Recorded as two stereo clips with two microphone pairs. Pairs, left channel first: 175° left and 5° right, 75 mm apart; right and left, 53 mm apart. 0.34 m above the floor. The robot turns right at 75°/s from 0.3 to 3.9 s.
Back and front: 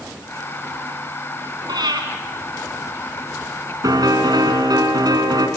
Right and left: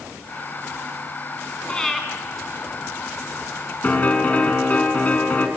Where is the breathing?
25° right, 4 m; by 2.0 s 5° left, 4 m.